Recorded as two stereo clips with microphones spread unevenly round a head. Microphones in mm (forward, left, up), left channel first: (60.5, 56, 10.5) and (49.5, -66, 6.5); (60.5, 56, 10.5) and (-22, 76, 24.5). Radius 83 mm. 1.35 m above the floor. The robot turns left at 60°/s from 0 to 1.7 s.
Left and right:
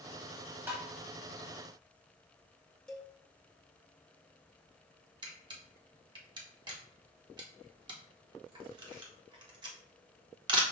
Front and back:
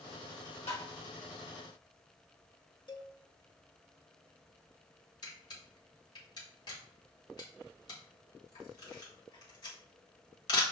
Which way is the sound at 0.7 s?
25° right.